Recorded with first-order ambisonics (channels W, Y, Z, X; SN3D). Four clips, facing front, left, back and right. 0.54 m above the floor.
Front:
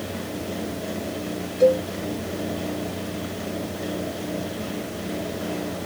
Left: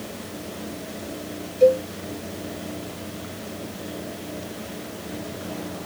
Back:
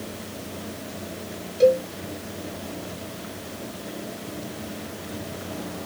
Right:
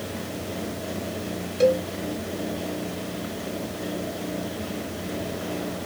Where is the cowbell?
100° right, 1.1 m.